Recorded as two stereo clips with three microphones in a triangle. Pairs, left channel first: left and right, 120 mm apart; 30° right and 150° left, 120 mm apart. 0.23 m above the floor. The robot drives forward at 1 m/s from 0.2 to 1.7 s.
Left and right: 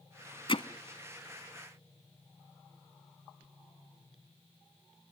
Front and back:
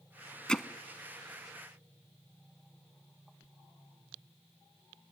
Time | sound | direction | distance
0.5 | hammering | 50° left | 0.9 m